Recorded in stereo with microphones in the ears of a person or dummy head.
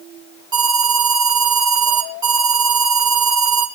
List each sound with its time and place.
0.5 s an alarm: 25° right (ahead or behind), 2.5 m